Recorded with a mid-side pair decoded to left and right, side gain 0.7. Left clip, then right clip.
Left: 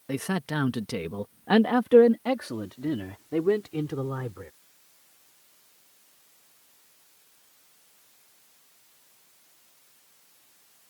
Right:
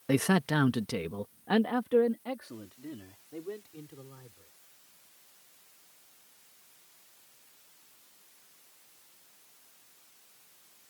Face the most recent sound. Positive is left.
turn(degrees=65)